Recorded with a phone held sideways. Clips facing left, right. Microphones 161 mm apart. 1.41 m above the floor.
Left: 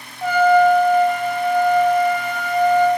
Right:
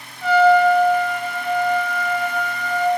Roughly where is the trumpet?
Left.